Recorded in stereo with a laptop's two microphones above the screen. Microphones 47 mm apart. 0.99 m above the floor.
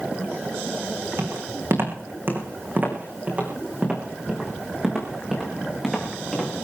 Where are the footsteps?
60° right (ahead or behind), 3.5 m; by 6.6 s 5° left (ahead or behind), 5 m.